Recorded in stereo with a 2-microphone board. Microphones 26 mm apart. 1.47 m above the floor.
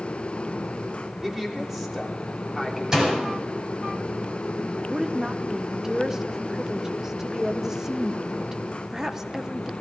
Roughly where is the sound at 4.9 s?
Centre.